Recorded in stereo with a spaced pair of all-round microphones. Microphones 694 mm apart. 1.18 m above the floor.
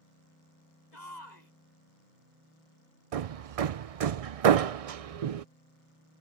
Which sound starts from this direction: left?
A shout, at 0.9 s.